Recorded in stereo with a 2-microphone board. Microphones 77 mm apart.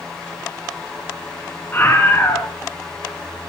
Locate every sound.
1.7 s a scream: 30° left (ahead or behind), 1.9 m